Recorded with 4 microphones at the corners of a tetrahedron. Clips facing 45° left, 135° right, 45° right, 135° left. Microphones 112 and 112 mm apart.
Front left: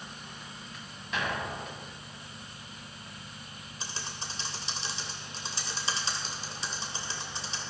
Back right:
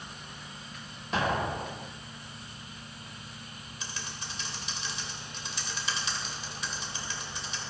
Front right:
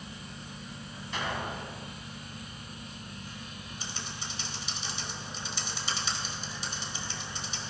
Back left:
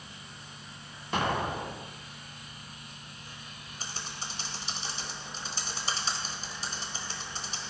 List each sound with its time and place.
1.1 s an explosion: 170° left, 0.6 m
3.8 s typing on a keyboard: 95° left, 1.3 m